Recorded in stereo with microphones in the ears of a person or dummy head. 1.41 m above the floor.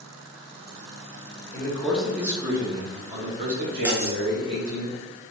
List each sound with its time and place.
1.5 s a man speaking: 20° left (ahead or behind), 1.1 m; by 4.8 s 65° right (ahead or behind), 2 m
3.9 s cutlery clinking: 15° right (ahead or behind), 0.5 m